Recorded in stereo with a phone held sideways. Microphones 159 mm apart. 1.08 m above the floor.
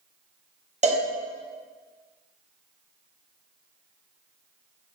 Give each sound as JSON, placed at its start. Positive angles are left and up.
{"t": 0.8, "sound": "a cowbell", "side_deg": -45, "distance_m": 1.3}